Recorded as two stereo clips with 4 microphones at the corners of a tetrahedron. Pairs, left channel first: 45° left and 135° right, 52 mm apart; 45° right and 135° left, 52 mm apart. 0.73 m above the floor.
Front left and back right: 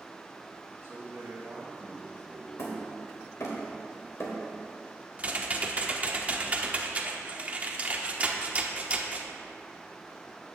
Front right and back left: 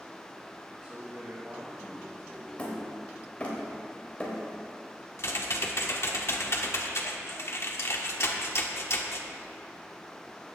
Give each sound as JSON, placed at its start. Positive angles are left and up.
{"t": 0.8, "sound": "a man speaking", "azimuth_deg": 180, "distance_m": 3.5}
{"t": 2.6, "sound": "hammering", "azimuth_deg": 25, "distance_m": 3.0}
{"t": 5.2, "sound": "typing on a keyboard", "azimuth_deg": -75, "distance_m": 1.2}